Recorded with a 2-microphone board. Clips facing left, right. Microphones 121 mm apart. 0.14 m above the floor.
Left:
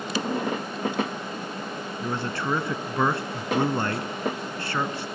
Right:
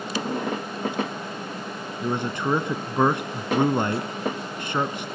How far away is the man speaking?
About 1.0 m.